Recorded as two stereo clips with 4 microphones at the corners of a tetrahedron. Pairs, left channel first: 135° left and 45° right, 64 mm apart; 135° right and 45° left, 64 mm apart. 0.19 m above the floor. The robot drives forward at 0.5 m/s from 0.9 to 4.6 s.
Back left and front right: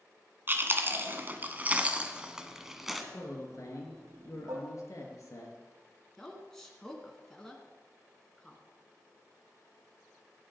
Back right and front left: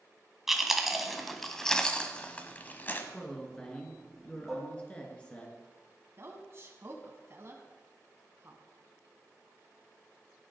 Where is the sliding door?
I don't hear a sliding door.